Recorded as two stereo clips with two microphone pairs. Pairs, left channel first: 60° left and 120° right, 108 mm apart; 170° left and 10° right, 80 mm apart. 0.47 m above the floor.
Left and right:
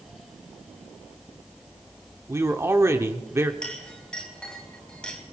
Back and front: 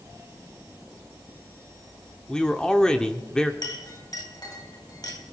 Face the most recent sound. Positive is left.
turn(degrees=140)